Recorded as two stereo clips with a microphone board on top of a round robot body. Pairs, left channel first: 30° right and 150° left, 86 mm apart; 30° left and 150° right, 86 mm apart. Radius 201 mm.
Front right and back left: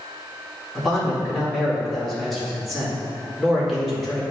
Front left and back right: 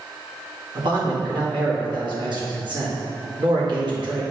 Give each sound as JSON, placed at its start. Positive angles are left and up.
{"t": 0.8, "sound": "a man speaking", "azimuth_deg": -120, "distance_m": 2.0}